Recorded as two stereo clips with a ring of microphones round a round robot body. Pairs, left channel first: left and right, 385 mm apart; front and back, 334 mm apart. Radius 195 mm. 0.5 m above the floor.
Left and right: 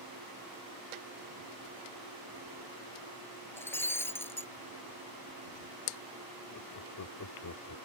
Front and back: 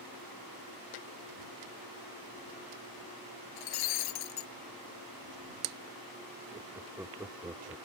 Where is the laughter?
100° left.